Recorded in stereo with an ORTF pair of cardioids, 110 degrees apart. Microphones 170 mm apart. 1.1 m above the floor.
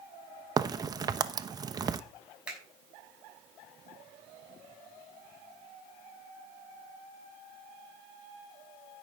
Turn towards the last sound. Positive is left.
turn(degrees=-5)